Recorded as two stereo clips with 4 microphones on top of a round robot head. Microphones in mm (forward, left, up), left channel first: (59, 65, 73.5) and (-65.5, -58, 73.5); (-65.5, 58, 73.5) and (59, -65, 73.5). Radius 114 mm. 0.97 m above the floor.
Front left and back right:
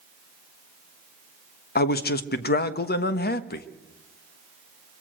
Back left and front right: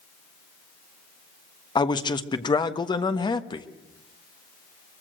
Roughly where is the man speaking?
Left.